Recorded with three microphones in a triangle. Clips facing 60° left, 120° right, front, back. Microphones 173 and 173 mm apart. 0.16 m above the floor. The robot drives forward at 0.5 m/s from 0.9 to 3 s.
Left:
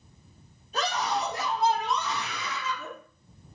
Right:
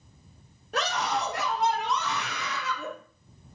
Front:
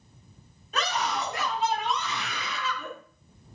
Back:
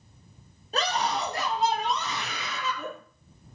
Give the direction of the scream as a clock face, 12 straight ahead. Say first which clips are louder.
Even, back 2 dB; 4 o'clock.